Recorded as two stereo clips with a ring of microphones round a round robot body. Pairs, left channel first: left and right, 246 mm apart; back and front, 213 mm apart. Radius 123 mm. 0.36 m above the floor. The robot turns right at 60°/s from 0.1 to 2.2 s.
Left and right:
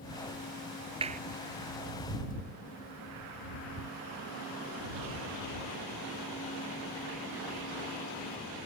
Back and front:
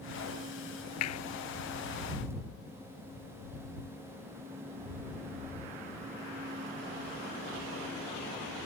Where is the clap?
160° right; by 1.2 s 150° right.